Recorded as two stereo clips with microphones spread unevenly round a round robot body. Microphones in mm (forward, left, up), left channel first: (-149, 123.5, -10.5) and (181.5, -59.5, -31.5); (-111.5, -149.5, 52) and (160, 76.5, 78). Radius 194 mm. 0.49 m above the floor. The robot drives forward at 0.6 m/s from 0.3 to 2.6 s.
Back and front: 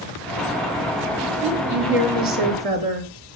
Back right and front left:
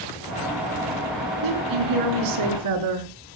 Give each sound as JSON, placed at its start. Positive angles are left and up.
{"t": 1.4, "sound": "a woman speaking", "azimuth_deg": 5, "distance_m": 7.5}